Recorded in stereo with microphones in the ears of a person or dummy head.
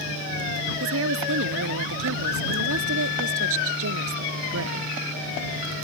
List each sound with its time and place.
0.8 s a woman speaking: 75° right (ahead or behind)